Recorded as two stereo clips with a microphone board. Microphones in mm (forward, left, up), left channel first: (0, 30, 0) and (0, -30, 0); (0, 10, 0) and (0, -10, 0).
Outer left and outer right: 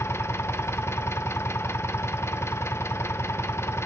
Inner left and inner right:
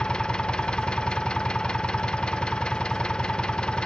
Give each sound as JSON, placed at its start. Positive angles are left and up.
{"t": 0.0, "sound": "an engine running", "side_deg": 45, "distance_m": 0.9}